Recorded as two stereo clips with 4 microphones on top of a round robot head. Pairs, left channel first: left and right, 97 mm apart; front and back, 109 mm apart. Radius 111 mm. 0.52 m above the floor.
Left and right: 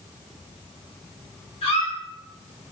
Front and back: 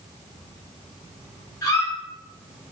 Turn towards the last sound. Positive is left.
turn(degrees=65)